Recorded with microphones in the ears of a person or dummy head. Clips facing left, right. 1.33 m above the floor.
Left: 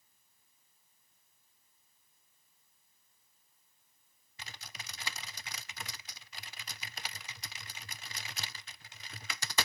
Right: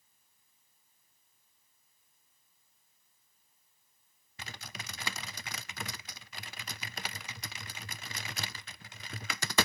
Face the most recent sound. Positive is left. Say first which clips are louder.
# right 5 dB
turn(degrees=-45)  # may be behind; listen again after turning